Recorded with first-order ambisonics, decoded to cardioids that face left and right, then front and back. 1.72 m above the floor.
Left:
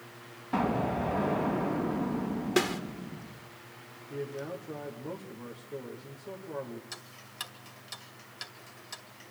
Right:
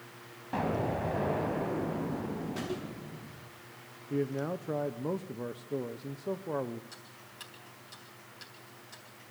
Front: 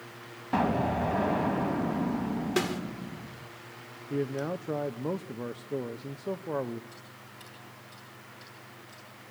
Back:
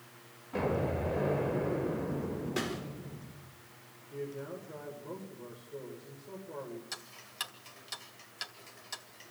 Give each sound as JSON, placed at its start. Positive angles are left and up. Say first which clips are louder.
{"t": 0.5, "sound": "an explosion", "louder": "left 2 dB, front 5 dB", "azimuth_deg": 5, "distance_m": 4.0}
{"t": 2.6, "sound": "a snare drum", "louder": "left 13 dB, front 7 dB", "azimuth_deg": 60, "distance_m": 1.7}
{"t": 4.1, "sound": "a man speaking", "louder": "right 4 dB, front 9 dB", "azimuth_deg": -25, "distance_m": 1.1}
{"t": 6.9, "sound": "ticking", "louder": "left 5 dB, back 4 dB", "azimuth_deg": 145, "distance_m": 2.0}